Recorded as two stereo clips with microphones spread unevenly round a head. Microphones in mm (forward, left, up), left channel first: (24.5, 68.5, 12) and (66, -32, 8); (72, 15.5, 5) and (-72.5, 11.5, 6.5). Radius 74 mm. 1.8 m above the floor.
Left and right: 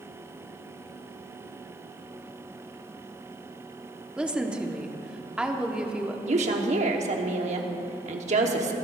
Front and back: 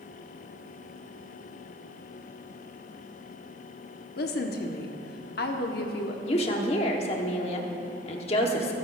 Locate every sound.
4.2 s a woman speaking: 15° left, 1.2 m
6.3 s a woman speaking: 50° right, 1.2 m